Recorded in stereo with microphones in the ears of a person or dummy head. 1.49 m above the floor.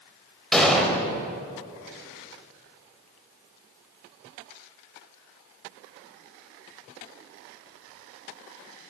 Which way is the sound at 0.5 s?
Centre (ahead or behind).